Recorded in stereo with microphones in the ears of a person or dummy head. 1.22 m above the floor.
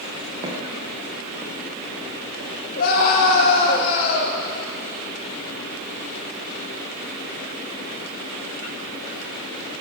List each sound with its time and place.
0.4 s footsteps: 30° right (ahead or behind), 4 m; by 3.6 s 65° right (ahead or behind), 3.5 m
2.8 s a scream: 50° left (ahead or behind), 6.5 m